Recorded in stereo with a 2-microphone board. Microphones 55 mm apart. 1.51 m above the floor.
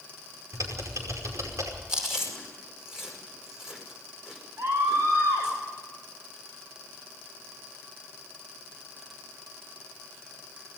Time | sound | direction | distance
0.5 | typing on a keyboard | 85° right | 5.5 m
1.9 | chewing | 10° right (ahead or behind) | 5.5 m
4.6 | a scream | 55° right (ahead or behind) | 8 m